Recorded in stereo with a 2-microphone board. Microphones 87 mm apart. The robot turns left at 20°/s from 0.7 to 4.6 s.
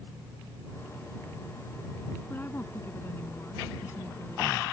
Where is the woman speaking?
130° left; by 4.6 s 85° left.